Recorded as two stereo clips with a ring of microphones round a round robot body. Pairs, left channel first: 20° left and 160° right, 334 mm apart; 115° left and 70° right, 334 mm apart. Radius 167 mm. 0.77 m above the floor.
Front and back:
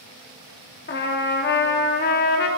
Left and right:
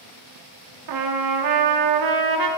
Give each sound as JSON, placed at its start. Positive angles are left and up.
{"t": 0.9, "sound": "a trumpet", "azimuth_deg": -40, "distance_m": 1.1}